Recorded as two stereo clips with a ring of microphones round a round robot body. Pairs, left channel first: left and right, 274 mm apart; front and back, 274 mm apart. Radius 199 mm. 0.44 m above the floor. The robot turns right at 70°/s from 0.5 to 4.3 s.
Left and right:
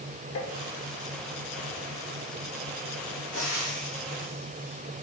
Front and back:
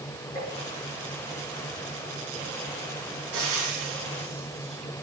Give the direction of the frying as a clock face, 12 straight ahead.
6 o'clock.